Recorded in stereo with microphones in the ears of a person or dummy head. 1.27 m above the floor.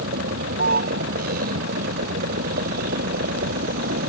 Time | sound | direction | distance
0.0 | a vehicle | 50° right (ahead or behind) | ?